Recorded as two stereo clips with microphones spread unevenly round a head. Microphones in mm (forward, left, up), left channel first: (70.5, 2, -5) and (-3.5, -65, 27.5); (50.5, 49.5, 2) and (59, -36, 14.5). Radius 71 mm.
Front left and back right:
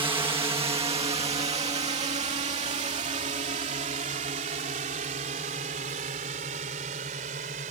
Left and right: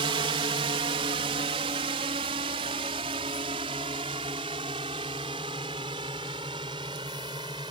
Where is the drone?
95° right; by 7.7 s 145° right.